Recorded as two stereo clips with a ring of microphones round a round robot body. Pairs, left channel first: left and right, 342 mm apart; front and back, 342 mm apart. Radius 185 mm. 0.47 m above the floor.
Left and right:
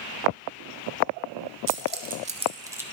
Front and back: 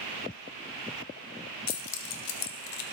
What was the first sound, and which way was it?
Keys jangling, 40° right.